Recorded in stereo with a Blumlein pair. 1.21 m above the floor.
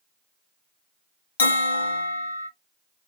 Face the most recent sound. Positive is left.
turn(degrees=70)